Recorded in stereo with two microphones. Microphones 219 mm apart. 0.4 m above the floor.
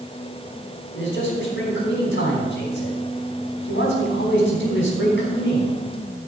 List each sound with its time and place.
0.9 s a man speaking: 60° left (ahead or behind), 4 m